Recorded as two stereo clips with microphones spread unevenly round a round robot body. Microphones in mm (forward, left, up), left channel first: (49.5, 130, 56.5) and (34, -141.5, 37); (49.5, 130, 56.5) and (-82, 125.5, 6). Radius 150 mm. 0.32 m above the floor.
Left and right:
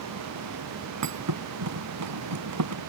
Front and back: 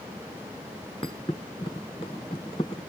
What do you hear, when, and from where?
1.0 s a thud: 70° right